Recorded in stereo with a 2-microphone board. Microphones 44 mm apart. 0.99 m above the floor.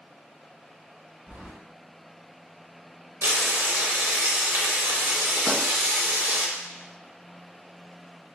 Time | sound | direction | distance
1.3 | keys jangling | 40° right (ahead or behind) | 1.3 m
3.2 | frying | 80° right | 0.7 m
5.5 | a pop | 15° left (ahead or behind) | 1.6 m